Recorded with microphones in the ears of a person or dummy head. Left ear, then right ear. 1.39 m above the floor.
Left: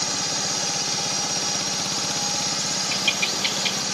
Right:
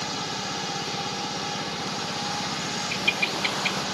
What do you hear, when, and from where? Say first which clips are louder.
0.0 s a drone: left 5 dB; 75° left (ahead or behind)
2.9 s a bird: left 1 dB; 30° left (ahead or behind)